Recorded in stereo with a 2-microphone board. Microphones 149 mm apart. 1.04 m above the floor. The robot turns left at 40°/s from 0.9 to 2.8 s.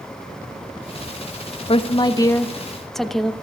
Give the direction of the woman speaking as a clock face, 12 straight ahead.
10 o'clock.